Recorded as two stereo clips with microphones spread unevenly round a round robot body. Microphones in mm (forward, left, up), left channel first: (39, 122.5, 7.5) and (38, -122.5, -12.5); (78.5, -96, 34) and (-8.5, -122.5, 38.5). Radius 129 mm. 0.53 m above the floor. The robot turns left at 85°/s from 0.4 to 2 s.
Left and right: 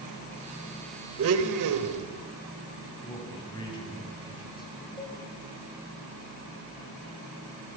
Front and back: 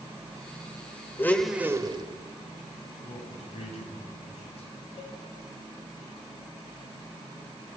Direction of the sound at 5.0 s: 15° left.